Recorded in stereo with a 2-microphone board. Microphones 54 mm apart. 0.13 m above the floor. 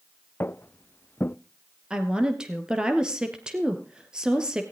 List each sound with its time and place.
0.4 s footsteps: 45° left (ahead or behind), 0.5 m
1.9 s a woman speaking: 15° right (ahead or behind), 2 m